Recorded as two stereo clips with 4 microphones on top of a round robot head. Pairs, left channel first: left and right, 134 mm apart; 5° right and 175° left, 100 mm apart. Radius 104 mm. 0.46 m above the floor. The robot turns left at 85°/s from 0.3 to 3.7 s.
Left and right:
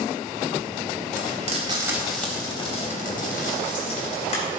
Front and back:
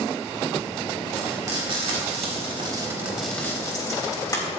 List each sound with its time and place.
1.2 s frying: 100° right, 3.5 m; by 4.6 s 45° left, 3.5 m